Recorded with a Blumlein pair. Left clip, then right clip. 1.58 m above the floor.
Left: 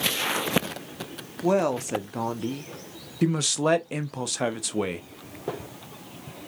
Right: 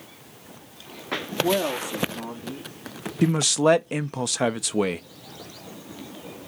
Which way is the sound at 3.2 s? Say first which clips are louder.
Right 4 dB; 10° right.